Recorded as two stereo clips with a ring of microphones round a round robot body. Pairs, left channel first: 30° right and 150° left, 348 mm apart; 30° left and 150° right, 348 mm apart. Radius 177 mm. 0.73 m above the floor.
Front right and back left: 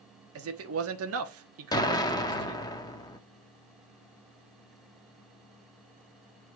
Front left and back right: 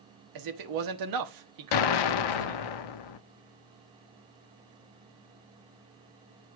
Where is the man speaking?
165° right, 1.3 m.